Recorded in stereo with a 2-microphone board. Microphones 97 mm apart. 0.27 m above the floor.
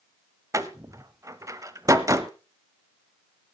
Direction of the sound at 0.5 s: 35° right (ahead or behind).